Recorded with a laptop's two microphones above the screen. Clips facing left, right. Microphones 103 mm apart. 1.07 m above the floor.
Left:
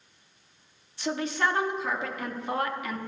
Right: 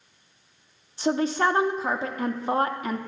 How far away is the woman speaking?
About 0.8 m.